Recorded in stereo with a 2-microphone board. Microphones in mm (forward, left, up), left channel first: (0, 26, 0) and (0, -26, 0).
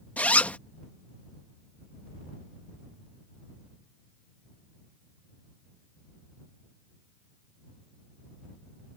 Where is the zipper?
30° left (ahead or behind).